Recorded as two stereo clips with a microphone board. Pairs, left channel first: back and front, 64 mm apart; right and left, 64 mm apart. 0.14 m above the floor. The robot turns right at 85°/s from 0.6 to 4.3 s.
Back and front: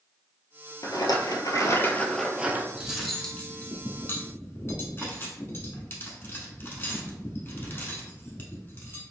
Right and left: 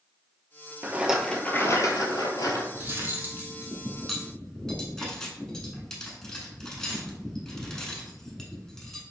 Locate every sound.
0.8 s a rattle: 150° left, 0.6 m; by 2.6 s 55° right, 0.6 m
2.7 s cutlery clinking: 65° left, 0.7 m; by 9.0 s 165° right, 0.7 m